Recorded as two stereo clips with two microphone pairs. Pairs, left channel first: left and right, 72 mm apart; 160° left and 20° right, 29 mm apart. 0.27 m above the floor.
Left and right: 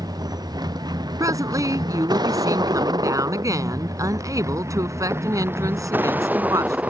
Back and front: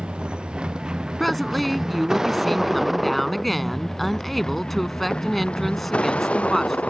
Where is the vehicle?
75° right; by 6.9 s 165° right.